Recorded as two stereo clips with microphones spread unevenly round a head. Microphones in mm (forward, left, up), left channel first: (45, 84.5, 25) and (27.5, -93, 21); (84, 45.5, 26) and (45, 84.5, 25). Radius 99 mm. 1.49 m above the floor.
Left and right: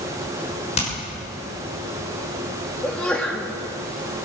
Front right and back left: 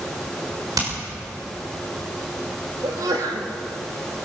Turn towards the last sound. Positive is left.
turn(degrees=170)